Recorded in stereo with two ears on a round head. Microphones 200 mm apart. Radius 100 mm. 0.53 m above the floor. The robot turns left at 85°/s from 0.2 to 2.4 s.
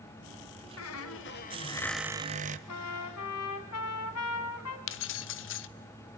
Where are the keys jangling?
60° left (ahead or behind), 1.0 m.